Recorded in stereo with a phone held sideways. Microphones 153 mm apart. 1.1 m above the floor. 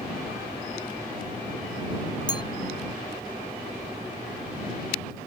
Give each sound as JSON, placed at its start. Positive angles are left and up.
{"t": 2.3, "sound": "a clink", "side_deg": 25}